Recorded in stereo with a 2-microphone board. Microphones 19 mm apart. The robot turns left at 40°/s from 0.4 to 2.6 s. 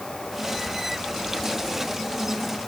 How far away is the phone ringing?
I don't hear a phone ringing.